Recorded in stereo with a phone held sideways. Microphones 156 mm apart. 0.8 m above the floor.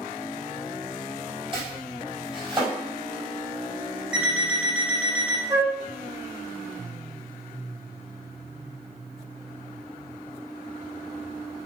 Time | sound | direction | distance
1.5 | chopping | 35° right (ahead or behind) | 4.5 m
4.1 | an alarm clock | 5° right (ahead or behind) | 4 m
5.5 | a flute | 20° right (ahead or behind) | 1.2 m